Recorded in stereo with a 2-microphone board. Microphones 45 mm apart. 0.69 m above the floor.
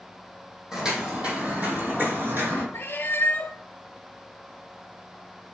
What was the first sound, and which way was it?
Footsteps, 15° right (ahead or behind).